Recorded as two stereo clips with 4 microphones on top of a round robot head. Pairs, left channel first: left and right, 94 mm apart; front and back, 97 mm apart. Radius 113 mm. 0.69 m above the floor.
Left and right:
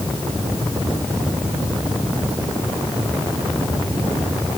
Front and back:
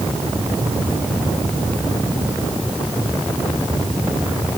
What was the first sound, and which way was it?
Only background noise.